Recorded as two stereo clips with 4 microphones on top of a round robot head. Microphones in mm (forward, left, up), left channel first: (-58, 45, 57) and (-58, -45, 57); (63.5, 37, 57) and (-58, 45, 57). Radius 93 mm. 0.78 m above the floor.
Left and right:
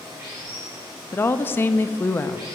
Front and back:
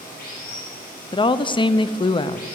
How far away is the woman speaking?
About 0.6 m.